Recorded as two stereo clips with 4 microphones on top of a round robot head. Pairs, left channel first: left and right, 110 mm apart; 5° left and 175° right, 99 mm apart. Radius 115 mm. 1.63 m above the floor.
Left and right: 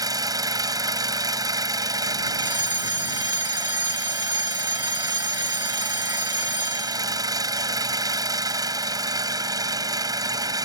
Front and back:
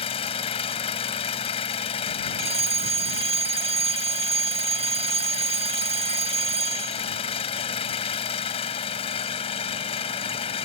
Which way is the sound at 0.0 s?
35° right.